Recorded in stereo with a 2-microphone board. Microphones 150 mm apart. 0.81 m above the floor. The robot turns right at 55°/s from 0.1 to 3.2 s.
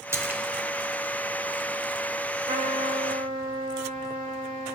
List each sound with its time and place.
0.1 s a splash: 15° right (ahead or behind), 0.5 m; by 0.4 s 10° right (ahead or behind), 0.5 m
2.5 s a trumpet: 105° right, 2.5 m; by 4.8 s 65° right, 2.5 m